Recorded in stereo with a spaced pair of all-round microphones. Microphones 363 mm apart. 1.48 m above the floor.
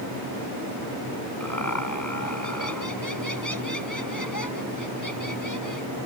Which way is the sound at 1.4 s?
55° left (ahead or behind).